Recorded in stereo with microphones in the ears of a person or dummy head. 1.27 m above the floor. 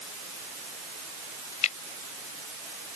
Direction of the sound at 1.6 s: 35° left (ahead or behind).